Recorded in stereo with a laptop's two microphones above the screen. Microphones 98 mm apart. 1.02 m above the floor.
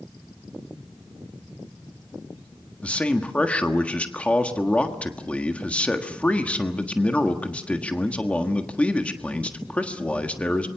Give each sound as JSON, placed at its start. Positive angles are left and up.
{"t": 2.8, "sound": "a man speaking", "side_deg": 15, "distance_m": 1.5}